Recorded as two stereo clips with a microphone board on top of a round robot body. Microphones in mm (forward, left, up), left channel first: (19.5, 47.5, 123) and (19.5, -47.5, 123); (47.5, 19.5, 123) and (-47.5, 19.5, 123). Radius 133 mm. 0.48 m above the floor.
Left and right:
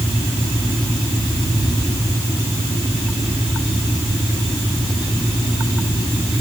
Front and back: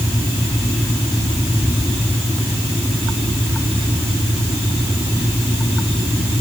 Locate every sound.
Only background noise.